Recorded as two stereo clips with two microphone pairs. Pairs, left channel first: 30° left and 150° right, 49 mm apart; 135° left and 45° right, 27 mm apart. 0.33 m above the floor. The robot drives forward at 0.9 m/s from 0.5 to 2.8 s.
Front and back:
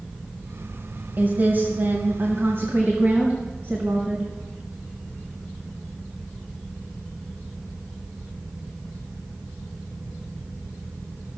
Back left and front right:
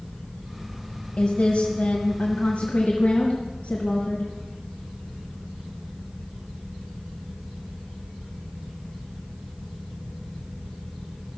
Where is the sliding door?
No sliding door in this recording.